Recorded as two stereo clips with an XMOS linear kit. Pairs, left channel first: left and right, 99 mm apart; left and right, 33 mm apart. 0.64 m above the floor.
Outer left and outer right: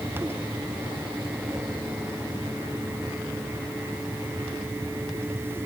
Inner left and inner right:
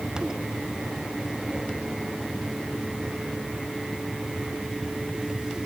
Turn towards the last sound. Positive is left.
No sound to turn to.